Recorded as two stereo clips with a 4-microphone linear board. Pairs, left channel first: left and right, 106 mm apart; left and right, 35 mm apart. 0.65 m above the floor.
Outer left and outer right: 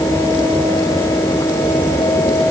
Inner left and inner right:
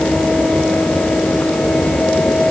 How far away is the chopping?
I don't hear chopping.